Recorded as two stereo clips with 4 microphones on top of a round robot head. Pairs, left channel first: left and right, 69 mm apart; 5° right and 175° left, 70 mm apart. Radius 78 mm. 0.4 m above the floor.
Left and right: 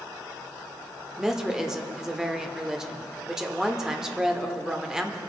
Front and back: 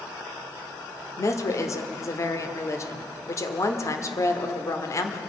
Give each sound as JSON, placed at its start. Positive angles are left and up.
{"t": 1.2, "sound": "a woman speaking", "azimuth_deg": -10, "distance_m": 1.2}